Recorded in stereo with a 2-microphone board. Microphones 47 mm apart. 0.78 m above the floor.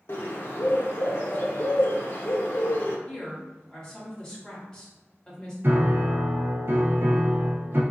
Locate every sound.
0.1 s a bird: 60° left (ahead or behind), 0.7 m
3.1 s a woman speaking: 15° left (ahead or behind), 1.5 m
5.6 s a piano: 45° right (ahead or behind), 0.5 m